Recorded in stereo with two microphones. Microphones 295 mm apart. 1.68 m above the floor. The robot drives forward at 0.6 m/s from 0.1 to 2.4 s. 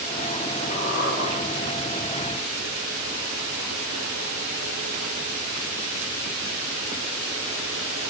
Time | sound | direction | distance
0.7 | a squeak | 35° left (ahead or behind) | 4 m